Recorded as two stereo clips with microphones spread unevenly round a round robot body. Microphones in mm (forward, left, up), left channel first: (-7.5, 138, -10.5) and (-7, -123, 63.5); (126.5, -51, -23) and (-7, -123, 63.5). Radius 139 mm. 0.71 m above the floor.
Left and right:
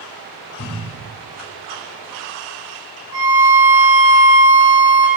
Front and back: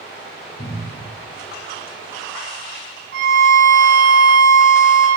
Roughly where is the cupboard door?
Left.